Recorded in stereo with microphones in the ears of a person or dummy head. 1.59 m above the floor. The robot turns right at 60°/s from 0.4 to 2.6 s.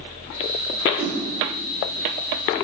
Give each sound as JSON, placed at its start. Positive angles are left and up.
{"t": 1.0, "sound": "a whoosh", "side_deg": -5, "distance_m": 6.5}